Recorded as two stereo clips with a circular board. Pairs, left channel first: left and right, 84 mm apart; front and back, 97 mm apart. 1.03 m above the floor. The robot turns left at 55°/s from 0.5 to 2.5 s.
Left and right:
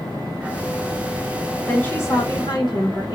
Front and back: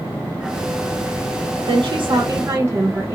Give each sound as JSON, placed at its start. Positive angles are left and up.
{"t": 1.7, "sound": "a woman speaking", "azimuth_deg": 160, "distance_m": 0.8}